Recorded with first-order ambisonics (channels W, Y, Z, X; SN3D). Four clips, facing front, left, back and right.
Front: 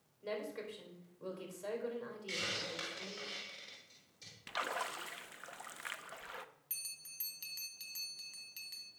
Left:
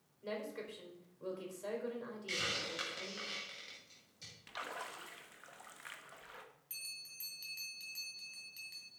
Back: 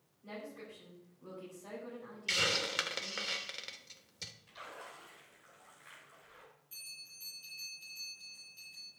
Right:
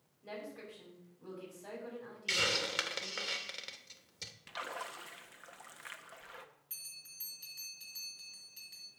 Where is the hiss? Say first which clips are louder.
Right 6 dB, back 8 dB; 140° right, 1.2 m.